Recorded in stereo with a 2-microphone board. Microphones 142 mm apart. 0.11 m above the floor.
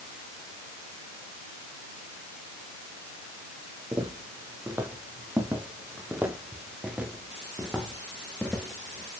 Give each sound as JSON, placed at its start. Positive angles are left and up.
{"t": 3.9, "sound": "footsteps", "side_deg": -20, "distance_m": 7.0}